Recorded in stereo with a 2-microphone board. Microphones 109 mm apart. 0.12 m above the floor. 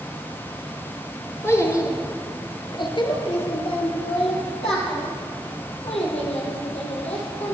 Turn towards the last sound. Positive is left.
turn(degrees=70)  # may be behind; listen again after turning